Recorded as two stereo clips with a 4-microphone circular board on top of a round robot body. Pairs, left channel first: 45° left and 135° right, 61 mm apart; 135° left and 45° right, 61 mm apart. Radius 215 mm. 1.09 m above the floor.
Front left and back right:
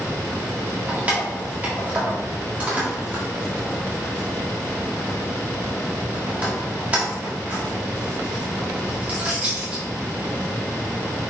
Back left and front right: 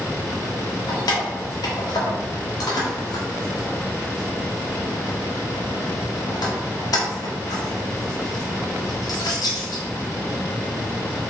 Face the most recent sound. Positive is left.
turn(degrees=155)